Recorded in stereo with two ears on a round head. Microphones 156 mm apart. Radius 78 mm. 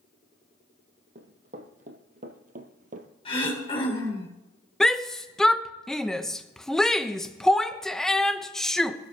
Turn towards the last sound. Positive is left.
turn(degrees=5)  # may be behind; listen again after turning